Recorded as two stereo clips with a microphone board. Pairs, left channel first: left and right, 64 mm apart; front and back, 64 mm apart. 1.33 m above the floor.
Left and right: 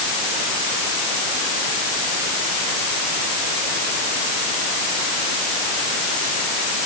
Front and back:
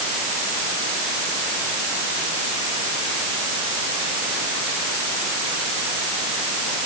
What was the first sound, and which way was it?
Only background noise.